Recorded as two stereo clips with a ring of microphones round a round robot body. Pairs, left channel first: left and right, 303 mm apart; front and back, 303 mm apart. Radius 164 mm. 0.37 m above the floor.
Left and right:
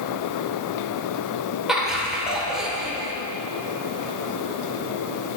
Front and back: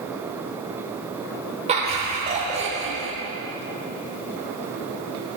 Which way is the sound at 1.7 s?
175° right.